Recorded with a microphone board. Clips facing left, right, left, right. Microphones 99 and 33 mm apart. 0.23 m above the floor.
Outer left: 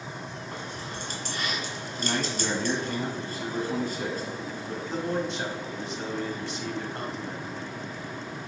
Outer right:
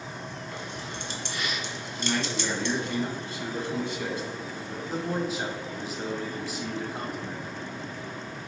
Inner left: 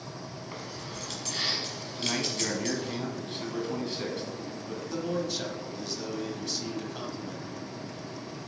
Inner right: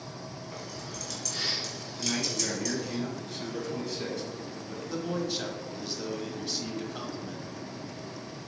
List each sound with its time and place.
0.5 s keys jangling: 40° left (ahead or behind), 1.5 m
1.9 s a man speaking: 40° left (ahead or behind), 1.5 m
4.9 s a man speaking: 5° right (ahead or behind), 1.3 m